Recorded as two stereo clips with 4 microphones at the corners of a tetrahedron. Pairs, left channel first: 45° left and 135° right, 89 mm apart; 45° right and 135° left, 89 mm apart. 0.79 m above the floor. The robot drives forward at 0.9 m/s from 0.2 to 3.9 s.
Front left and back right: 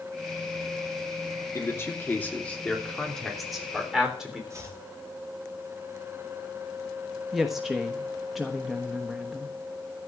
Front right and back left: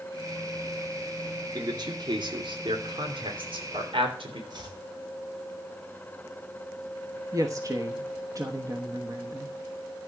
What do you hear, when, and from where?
1.6 s a man speaking: 100° left, 2 m; by 4.4 s 140° left, 3 m
4.5 s chopping: 170° left, 2.5 m
7.3 s a woman speaking: 140° left, 1.1 m